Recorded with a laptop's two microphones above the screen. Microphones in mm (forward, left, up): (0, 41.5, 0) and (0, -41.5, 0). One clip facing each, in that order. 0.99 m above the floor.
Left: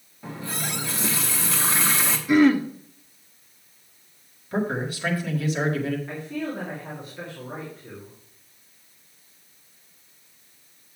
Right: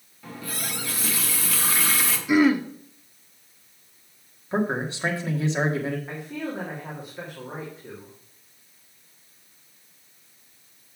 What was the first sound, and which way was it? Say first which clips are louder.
A running tap: left 3 dB; 25° left (ahead or behind).